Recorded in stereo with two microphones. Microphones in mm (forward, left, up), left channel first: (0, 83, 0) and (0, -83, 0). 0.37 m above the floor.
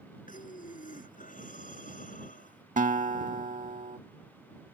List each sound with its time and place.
0.3 s breathing: 55° left (ahead or behind)
2.8 s a guitar: 55° right (ahead or behind)